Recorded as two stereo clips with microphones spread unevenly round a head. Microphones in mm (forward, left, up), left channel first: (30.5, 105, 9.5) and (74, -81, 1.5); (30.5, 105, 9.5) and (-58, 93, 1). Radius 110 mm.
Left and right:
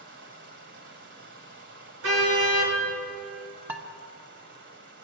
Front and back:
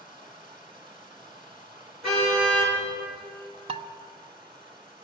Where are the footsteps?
No footsteps in this recording.